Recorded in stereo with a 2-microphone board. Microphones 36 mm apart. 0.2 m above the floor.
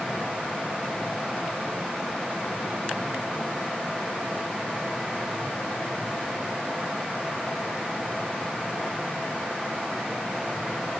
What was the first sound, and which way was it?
Only background noise.